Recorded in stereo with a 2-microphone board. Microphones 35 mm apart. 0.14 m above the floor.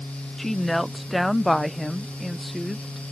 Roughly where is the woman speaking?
Centre.